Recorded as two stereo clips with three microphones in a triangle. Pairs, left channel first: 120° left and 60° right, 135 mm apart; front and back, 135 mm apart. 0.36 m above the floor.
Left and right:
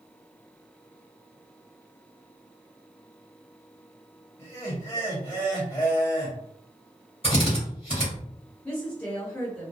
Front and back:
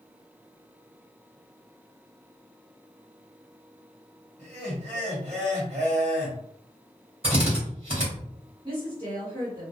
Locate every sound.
4.4 s laughter: straight behind, 1.8 m
7.2 s a drill: 150° left, 1.8 m
8.6 s a woman speaking: 170° right, 1.8 m